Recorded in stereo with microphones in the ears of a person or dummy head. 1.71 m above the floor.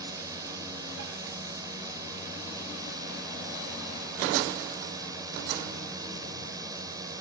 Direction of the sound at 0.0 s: 20° right (ahead or behind).